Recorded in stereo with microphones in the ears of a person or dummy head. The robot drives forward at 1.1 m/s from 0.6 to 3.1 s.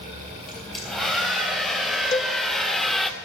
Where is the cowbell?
20° left (ahead or behind), 0.5 m; by 2.4 s 15° left (ahead or behind), 0.6 m.